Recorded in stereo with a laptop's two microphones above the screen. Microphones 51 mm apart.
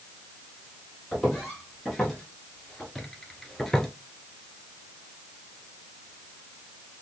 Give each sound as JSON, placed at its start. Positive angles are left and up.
{"t": 1.1, "sound": "footsteps", "side_deg": 5, "distance_m": 2.0}